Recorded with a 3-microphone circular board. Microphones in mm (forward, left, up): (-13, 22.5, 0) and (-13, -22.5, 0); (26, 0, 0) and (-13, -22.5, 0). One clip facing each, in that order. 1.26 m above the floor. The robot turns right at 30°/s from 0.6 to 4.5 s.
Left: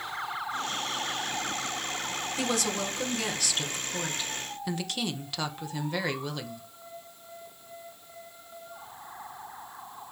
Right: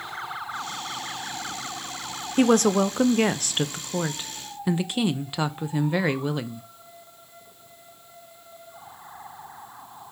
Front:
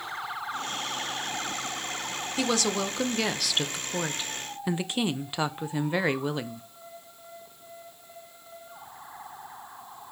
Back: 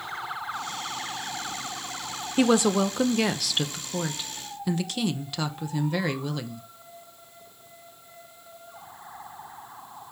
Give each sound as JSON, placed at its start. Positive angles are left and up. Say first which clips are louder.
{"t": 2.4, "sound": "a woman speaking", "louder": "right 13 dB, back 7 dB", "azimuth_deg": -95, "distance_m": 0.6}